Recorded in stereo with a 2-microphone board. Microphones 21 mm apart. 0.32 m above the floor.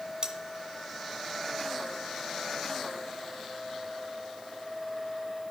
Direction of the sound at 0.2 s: 45° right (ahead or behind).